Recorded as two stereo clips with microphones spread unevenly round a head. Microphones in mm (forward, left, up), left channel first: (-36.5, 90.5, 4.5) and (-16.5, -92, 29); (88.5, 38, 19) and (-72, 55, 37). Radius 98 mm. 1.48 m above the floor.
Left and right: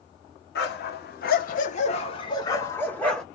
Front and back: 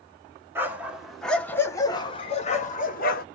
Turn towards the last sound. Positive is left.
turn(degrees=5)